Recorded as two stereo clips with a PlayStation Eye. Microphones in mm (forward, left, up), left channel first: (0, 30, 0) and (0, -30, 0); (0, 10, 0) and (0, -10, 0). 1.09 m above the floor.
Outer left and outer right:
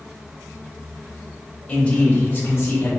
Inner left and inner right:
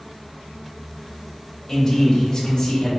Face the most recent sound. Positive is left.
turn(degrees=45)  # may be behind; listen again after turning